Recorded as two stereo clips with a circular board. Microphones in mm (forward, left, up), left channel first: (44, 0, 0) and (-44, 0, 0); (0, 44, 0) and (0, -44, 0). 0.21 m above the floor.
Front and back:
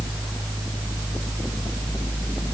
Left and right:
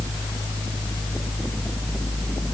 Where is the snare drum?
I don't hear a snare drum.